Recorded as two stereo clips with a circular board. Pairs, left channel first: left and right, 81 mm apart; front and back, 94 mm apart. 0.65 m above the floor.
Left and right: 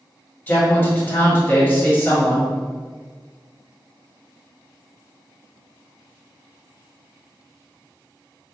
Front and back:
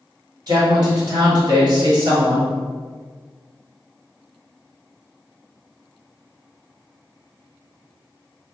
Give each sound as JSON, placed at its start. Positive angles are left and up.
{"t": 0.5, "sound": "a man speaking", "azimuth_deg": 150, "distance_m": 1.7}